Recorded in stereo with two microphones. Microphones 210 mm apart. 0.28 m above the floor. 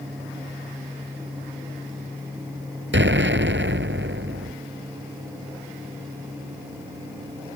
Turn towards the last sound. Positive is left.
turn(degrees=-65)  # may be behind; listen again after turning